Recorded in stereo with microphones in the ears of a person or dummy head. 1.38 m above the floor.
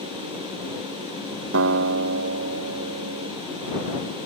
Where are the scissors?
No scissors in this recording.